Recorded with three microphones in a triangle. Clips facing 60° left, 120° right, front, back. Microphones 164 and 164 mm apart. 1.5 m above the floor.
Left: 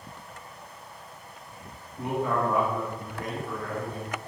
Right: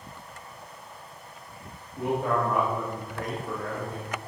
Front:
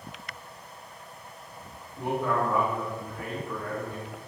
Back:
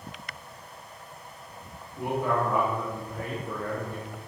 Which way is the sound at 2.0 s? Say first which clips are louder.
Right 1 dB, even; 105° right.